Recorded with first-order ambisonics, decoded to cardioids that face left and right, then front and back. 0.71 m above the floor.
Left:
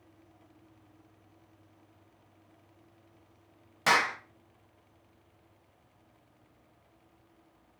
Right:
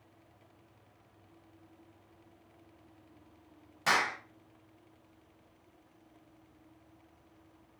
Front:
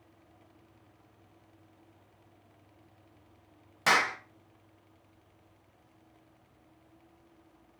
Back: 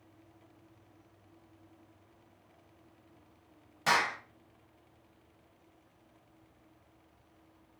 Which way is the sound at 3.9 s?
45° left.